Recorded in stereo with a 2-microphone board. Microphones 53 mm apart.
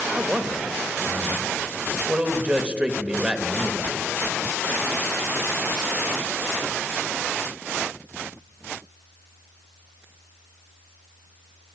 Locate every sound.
0.1 s a man speaking: 20° right (ahead or behind), 1.0 m